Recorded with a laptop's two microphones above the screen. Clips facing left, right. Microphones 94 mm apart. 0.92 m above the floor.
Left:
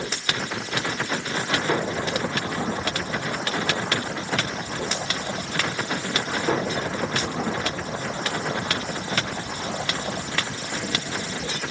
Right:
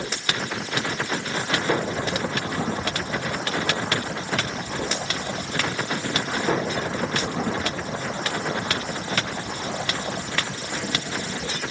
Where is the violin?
I don't hear a violin.